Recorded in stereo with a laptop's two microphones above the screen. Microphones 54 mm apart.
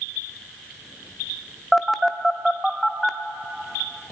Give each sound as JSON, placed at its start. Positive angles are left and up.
{"t": 1.7, "sound": "a phone buzzing", "side_deg": 0, "distance_m": 0.8}